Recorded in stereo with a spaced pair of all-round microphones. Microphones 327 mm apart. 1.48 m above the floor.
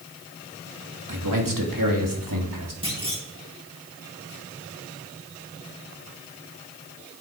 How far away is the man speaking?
About 2.5 m.